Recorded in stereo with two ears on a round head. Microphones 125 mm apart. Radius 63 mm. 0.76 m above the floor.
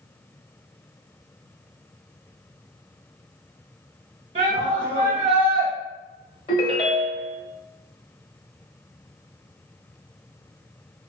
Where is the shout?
40° right (ahead or behind), 1.0 m.